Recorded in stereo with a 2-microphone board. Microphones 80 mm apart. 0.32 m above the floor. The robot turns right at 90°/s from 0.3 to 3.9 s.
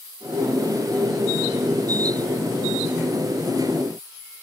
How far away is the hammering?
I don't hear hammering.